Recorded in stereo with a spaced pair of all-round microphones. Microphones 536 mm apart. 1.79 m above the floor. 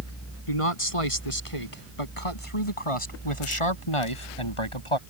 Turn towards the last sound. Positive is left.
turn(degrees=65)  # may be behind; listen again after turning